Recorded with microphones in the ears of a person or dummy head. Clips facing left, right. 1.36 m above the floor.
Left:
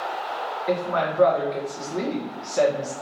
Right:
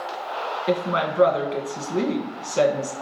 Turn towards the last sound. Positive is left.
turn(degrees=-35)  # may be behind; listen again after turning